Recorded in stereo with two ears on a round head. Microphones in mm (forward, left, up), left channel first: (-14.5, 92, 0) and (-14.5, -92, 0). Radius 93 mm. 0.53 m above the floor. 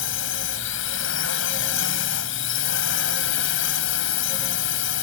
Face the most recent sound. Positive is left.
turn(degrees=65)  # may be behind; listen again after turning